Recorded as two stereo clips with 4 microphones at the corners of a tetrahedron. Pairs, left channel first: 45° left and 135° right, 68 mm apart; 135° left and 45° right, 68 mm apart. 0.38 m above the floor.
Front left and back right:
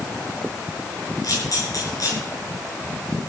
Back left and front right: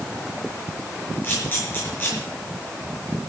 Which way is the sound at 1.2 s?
75° left.